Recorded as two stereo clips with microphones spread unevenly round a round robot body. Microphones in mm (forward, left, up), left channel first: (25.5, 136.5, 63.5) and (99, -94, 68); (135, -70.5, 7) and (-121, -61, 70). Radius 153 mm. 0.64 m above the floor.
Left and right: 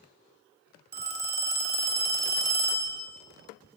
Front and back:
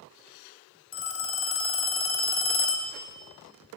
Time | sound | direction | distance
0.9 | a phone ringing | 25° right | 1.2 m